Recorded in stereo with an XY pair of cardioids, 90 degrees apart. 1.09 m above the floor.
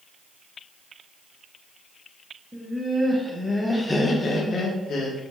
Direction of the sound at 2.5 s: 25° right.